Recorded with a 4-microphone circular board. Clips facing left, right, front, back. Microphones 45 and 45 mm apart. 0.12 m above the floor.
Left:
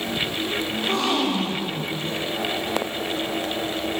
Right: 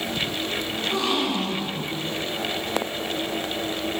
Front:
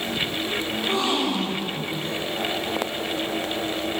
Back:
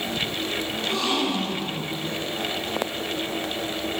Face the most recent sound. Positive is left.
turn(degrees=60)